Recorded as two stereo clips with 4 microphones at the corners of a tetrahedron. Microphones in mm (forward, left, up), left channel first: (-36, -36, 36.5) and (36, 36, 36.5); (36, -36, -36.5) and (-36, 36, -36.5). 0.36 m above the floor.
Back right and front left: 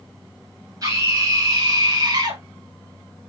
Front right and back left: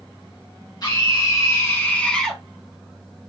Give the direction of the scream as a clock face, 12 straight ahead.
12 o'clock.